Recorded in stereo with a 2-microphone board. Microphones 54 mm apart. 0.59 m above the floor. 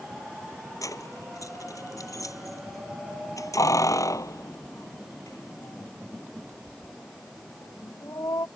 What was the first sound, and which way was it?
Keys jangling, 85° left.